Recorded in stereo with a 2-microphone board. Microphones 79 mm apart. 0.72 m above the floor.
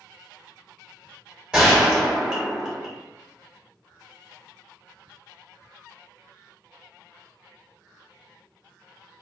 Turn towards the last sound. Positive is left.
turn(degrees=-10)  # may be behind; listen again after turning